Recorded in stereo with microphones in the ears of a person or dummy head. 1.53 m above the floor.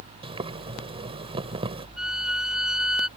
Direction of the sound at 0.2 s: 25° right (ahead or behind).